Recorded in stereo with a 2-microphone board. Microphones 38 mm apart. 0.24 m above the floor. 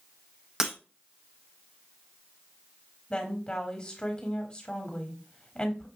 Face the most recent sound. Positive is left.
turn(degrees=20)  # may be behind; listen again after turning